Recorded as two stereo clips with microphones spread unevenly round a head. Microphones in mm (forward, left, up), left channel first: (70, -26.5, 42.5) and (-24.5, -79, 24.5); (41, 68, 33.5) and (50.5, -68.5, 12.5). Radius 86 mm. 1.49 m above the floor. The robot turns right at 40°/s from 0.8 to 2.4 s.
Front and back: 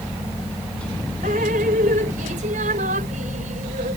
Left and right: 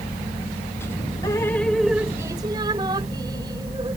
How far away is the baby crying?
I don't hear a baby crying.